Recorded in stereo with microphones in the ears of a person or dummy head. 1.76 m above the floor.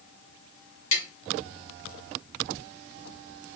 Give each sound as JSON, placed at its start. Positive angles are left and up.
{"t": 0.9, "sound": "tapping", "side_deg": 40, "distance_m": 1.9}